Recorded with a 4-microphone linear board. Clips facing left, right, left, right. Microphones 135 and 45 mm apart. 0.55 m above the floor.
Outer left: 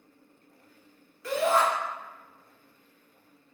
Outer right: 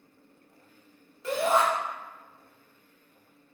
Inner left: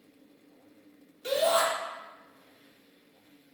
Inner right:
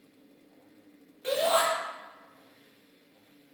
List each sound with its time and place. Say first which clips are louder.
1.2 s a shout: even, even; 25° right (ahead or behind), 1.2 m